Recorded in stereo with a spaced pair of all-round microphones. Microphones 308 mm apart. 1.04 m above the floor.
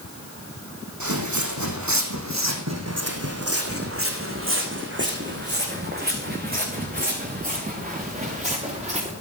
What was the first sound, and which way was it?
Footsteps, 70° right (ahead or behind).